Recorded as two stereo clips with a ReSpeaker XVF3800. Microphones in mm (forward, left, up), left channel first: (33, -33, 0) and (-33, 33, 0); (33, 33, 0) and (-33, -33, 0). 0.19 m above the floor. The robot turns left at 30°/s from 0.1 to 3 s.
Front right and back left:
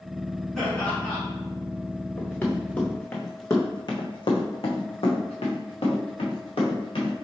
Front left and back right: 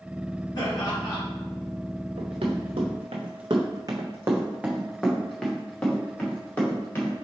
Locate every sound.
0.6 s laughter: 40° left, 1.8 m; by 1.2 s 20° left, 1.8 m
2.2 s running footsteps: 110° right, 1.2 m; by 7.2 s 25° right, 2 m